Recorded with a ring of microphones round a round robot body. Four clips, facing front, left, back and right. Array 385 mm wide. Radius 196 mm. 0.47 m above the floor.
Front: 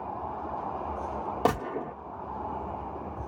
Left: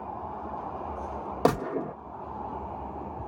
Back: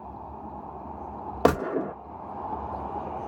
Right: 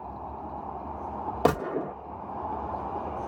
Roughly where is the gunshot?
Behind.